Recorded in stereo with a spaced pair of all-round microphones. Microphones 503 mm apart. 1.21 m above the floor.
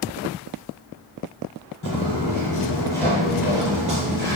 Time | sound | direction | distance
1.8 | footsteps | 25° left (ahead or behind) | 1.4 m